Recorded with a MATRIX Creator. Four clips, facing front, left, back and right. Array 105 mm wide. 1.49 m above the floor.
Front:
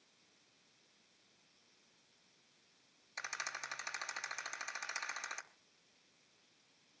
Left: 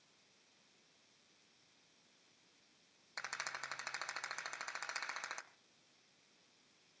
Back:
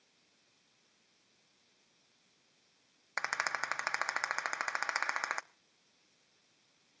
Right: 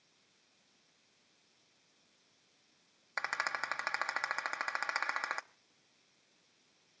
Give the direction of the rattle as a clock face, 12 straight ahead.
5 o'clock.